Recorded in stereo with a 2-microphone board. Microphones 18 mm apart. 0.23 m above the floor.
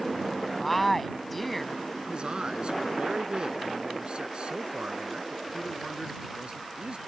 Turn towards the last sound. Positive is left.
turn(degrees=-60)  # may be behind; listen again after turning